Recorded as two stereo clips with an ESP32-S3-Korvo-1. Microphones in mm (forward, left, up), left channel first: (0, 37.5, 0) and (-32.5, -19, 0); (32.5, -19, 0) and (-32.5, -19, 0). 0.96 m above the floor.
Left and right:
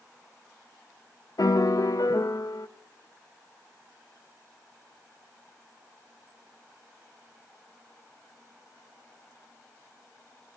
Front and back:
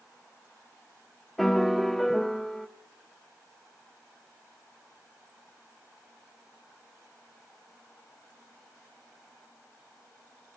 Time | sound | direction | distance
1.4 | a piano | 85° left | 0.5 m